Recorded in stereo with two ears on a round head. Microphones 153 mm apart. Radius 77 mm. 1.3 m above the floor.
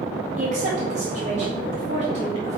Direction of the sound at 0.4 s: 45° right (ahead or behind).